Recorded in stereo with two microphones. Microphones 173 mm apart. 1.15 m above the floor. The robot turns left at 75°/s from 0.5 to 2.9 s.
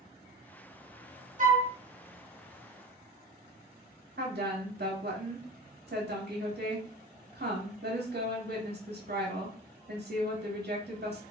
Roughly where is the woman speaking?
Right.